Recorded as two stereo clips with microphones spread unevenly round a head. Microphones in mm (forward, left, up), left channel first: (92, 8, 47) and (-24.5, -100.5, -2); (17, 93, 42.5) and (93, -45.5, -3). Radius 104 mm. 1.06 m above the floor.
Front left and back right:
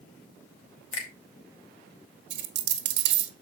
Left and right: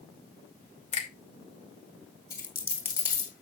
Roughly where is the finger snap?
Left.